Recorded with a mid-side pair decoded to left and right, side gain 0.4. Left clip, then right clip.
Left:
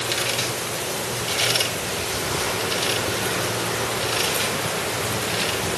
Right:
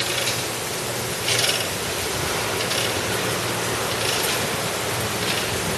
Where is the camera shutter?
I don't hear a camera shutter.